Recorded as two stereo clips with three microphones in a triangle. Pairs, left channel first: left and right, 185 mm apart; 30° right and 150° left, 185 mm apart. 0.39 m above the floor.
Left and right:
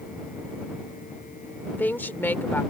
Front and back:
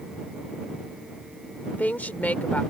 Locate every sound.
1.7 s a woman speaking: 35° left